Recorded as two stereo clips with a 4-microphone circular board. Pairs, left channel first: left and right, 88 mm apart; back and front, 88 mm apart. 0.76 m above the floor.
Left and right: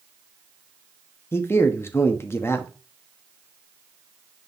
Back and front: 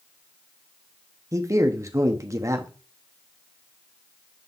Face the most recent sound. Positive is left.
turn(degrees=40)